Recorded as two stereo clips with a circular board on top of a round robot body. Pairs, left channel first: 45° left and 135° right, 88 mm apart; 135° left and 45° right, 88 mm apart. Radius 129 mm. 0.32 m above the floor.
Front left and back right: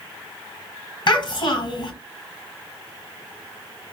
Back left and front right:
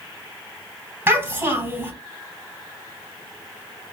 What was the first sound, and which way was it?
A child speaking, 15° left.